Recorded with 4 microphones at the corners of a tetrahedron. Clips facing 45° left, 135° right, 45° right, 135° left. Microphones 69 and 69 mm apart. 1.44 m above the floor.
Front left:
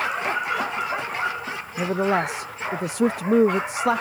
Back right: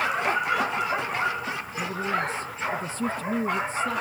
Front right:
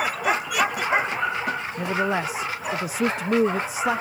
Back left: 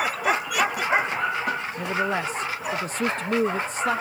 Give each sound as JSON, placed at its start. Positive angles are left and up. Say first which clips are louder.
{"t": 1.8, "sound": "a man speaking", "louder": "front left 7 dB, front right 3 dB", "azimuth_deg": 40}